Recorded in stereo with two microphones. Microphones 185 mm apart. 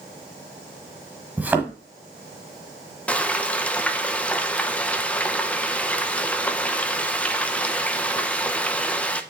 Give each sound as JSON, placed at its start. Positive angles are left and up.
{"t": 1.4, "sound": "a thud", "side_deg": -10, "distance_m": 1.3}
{"t": 3.1, "sound": "frying", "side_deg": 5, "distance_m": 0.7}